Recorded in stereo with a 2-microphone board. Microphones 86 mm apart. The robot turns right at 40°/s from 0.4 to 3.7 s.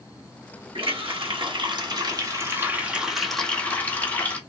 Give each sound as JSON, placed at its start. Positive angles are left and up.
{"t": 0.8, "sound": "a running tap", "azimuth_deg": -100, "distance_m": 1.3}